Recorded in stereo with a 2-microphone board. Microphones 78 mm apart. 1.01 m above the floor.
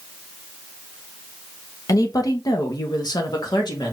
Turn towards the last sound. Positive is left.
turn(degrees=60)  # may be behind; listen again after turning